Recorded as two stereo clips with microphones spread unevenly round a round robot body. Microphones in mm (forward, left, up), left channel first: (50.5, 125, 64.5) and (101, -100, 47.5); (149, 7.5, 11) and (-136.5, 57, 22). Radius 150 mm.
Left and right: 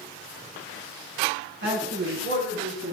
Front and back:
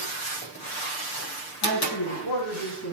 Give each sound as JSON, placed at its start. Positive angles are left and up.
{"t": 1.6, "sound": "a man speaking", "azimuth_deg": -45, "distance_m": 6.0}